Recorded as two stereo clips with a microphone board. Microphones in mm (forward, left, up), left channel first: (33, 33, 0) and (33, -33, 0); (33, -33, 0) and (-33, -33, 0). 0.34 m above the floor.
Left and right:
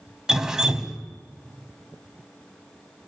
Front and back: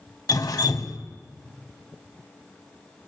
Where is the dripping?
10° right, 0.8 m.